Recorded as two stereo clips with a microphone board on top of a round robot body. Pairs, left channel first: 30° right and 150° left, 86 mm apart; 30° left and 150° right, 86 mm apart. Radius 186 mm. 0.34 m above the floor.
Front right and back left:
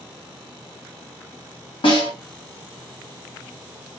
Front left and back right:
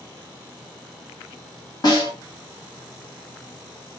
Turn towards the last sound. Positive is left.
turn(degrees=-10)